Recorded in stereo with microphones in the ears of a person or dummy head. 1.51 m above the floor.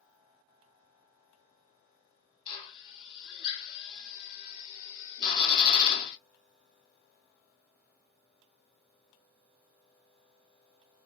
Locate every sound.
2.5 s a drill: 30° left (ahead or behind), 1.0 m